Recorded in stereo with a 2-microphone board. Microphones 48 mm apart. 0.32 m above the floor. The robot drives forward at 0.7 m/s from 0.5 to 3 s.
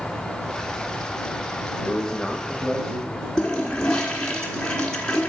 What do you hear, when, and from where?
1.8 s a man speaking: 15° left (ahead or behind), 0.8 m; by 3.3 s 10° left (ahead or behind), 1.3 m
3.4 s a toilet flushing: 20° left (ahead or behind), 1.6 m